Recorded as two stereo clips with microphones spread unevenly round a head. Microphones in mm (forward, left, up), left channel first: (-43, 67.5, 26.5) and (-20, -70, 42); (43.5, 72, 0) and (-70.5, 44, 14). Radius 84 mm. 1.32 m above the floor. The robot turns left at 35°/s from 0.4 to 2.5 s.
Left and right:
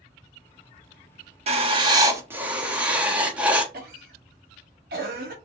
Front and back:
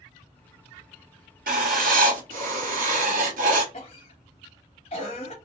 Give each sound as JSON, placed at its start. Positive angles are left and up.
{"t": 1.5, "sound": "writing", "azimuth_deg": -125, "distance_m": 1.0}
{"t": 3.7, "sound": "a cough", "azimuth_deg": -45, "distance_m": 1.2}